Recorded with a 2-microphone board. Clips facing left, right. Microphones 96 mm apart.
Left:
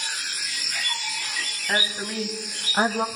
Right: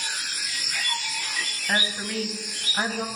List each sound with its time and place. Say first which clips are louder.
1.7 s a woman speaking: even; centre (ahead or behind), 2 m; by 3.1 s 45° left (ahead or behind), 1.7 m